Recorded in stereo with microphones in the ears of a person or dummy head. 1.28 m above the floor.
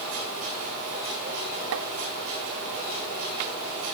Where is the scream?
I don't hear a scream.